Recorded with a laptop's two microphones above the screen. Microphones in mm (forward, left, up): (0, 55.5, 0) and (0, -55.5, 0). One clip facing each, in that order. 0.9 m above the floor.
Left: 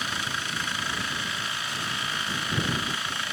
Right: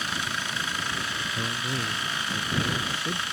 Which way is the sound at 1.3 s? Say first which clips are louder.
Right 3 dB; 80° right.